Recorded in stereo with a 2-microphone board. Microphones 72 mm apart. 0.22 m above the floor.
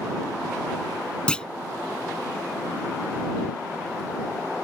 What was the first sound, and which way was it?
A clunk, 15° left (ahead or behind).